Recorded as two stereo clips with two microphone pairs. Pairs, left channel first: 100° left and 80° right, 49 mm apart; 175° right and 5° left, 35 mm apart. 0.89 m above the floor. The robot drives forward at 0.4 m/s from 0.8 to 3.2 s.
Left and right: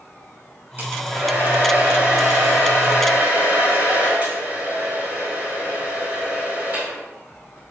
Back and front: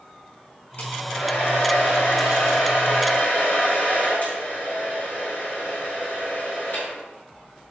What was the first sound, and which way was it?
A hair dryer, 125° right.